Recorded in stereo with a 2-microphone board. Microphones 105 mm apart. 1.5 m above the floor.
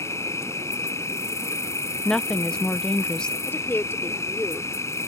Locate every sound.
0.0 s an insect: 30° left (ahead or behind)
2.0 s a woman speaking: 10° left (ahead or behind)
3.5 s a woman speaking: 25° left (ahead or behind)